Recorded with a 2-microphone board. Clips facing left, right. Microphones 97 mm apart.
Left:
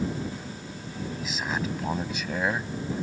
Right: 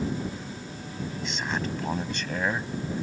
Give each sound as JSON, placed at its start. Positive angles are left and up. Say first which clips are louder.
{"t": 1.2, "sound": "a man speaking", "louder": "even", "side_deg": 5}